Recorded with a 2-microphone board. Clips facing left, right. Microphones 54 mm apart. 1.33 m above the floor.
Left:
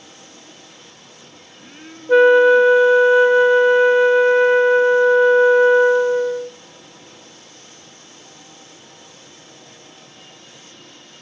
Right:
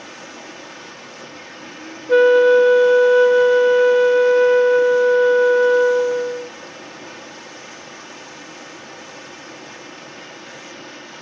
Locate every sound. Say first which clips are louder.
0.0 s running water: right 8 dB; 60° right (ahead or behind), 1.7 m
2.1 s a flute: left 1 dB; 15° left (ahead or behind), 0.6 m